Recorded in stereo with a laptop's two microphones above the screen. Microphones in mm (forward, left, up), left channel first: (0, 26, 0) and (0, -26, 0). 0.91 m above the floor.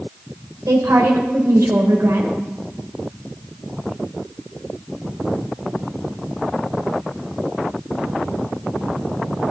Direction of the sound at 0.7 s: 85° right.